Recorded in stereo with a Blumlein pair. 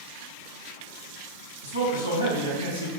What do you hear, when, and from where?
1.6 s a man speaking: 65° left, 1.1 m